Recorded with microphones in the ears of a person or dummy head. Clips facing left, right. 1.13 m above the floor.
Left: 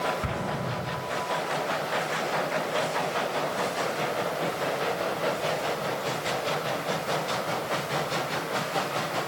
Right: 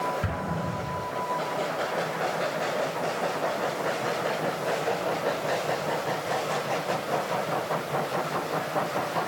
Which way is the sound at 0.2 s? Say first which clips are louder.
Even; 15° right (ahead or behind).